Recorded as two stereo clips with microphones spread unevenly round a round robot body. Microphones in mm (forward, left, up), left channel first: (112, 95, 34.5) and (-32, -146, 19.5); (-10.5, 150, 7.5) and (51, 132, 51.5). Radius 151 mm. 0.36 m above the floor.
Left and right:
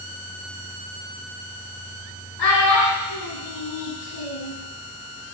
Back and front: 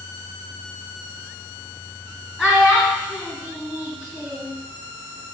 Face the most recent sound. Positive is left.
turn(degrees=85)